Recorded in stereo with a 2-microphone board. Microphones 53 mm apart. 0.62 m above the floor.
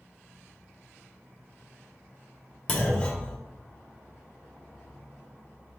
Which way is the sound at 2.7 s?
25° left (ahead or behind).